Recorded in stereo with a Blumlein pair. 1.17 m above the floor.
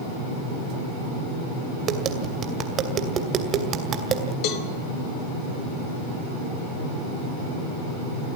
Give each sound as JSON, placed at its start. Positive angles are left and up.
{"t": 1.9, "sound": "tapping", "azimuth_deg": -30, "distance_m": 2.5}
{"t": 4.4, "sound": "a cowbell", "azimuth_deg": 40, "distance_m": 2.0}